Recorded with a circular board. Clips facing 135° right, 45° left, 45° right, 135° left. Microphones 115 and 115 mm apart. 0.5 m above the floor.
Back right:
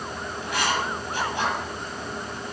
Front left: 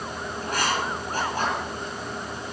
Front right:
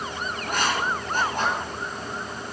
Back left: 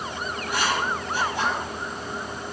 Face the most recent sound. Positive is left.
turn(degrees=-5)